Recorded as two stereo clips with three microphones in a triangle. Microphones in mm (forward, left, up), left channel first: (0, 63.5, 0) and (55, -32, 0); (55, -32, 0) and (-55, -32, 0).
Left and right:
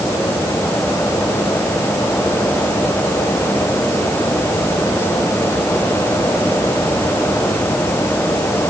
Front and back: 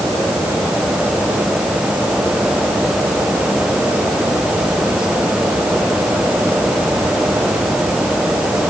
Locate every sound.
Only background noise.